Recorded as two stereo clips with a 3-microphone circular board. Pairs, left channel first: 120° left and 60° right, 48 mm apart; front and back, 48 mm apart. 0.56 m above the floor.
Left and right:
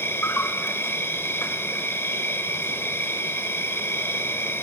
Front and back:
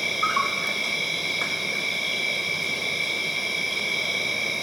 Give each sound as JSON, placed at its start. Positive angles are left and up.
{"t": 0.0, "sound": "an insect", "azimuth_deg": 90, "distance_m": 1.5}